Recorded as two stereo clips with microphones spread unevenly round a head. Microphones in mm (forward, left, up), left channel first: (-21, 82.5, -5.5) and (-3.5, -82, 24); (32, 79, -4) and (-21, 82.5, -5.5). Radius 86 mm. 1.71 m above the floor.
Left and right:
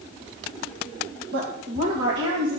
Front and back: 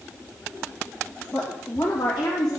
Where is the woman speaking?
80° right, 1.9 m; by 2.6 s 65° right, 2.5 m.